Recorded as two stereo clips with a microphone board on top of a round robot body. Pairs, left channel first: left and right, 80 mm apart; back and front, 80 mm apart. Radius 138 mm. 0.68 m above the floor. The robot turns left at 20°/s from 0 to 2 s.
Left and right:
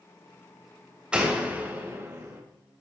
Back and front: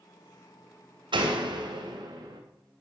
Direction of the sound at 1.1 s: 15° right.